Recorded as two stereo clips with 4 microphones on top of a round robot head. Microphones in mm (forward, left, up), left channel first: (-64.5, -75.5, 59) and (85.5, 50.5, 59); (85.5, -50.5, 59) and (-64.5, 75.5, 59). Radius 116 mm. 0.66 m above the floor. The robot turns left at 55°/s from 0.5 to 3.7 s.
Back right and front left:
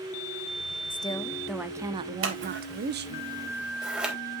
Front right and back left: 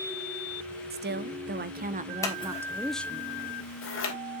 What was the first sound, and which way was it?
A woman speaking, 160° left.